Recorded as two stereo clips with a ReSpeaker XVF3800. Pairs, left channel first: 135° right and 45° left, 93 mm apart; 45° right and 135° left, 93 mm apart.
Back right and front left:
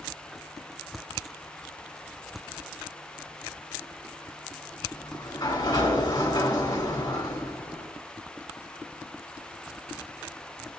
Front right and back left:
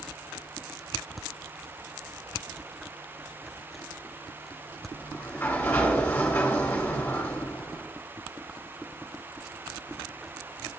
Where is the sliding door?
105° right, 2.5 m.